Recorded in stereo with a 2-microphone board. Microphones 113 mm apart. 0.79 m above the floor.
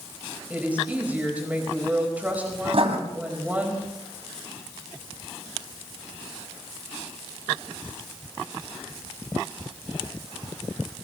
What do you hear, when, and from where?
0.5 s a woman speaking: 15° right (ahead or behind), 4.5 m
2.7 s writing: 60° right (ahead or behind), 2 m